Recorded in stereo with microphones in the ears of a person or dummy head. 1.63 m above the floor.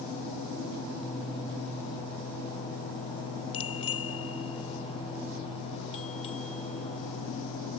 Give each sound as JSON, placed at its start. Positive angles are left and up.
{"t": 3.5, "sound": "a bicycle bell", "side_deg": 40}